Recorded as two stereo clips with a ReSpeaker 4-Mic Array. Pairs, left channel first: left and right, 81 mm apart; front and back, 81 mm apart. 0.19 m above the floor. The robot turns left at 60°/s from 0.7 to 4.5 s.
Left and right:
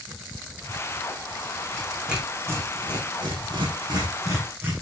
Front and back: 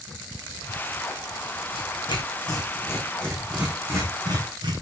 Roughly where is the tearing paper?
Ahead.